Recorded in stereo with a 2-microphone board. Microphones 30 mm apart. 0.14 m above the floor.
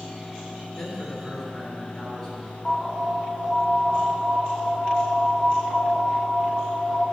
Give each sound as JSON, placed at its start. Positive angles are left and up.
{"t": 0.8, "sound": "a man speaking", "side_deg": 25, "distance_m": 2.5}
{"t": 2.6, "sound": "an alarm", "side_deg": 25, "distance_m": 1.4}